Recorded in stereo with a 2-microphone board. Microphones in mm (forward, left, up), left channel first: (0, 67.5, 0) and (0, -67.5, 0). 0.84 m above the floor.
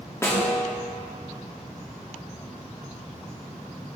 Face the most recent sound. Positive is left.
turn(degrees=20)  # may be behind; listen again after turning